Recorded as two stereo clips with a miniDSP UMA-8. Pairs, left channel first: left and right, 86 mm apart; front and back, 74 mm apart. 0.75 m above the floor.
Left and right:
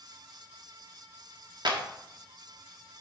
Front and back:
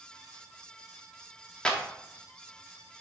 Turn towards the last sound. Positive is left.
turn(degrees=-75)